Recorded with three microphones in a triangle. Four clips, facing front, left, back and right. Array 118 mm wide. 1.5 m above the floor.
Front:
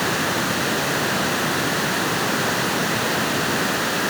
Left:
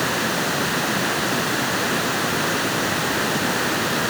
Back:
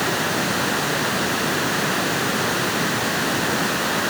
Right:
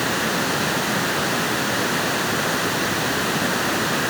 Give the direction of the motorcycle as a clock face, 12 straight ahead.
No motorcycle in this recording.